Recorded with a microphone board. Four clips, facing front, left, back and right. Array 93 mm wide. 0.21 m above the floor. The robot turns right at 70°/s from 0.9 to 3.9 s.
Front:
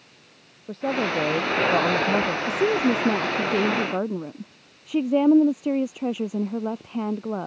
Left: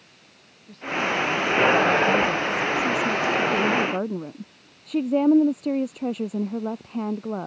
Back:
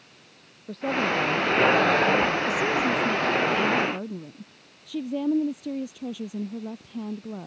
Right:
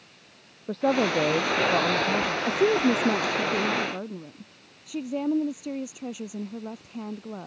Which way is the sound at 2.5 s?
65° right.